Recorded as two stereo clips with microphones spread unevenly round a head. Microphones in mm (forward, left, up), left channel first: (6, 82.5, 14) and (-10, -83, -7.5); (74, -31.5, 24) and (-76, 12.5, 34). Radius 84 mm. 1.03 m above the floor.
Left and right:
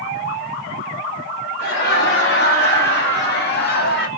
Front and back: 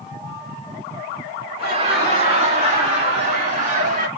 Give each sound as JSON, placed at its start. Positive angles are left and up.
{"t": 1.6, "sound": "laughter", "azimuth_deg": 110, "distance_m": 3.5}